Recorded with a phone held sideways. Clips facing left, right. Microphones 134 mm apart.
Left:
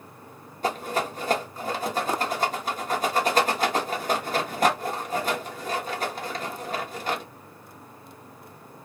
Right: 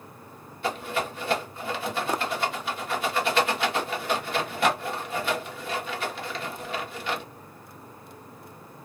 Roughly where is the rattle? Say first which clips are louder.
Left 2 dB; left.